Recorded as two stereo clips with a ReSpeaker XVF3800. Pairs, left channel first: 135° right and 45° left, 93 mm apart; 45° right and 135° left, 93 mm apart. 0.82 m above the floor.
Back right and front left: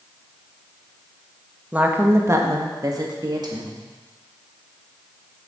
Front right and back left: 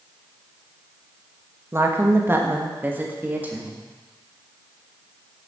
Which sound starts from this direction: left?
A woman speaking, at 1.7 s.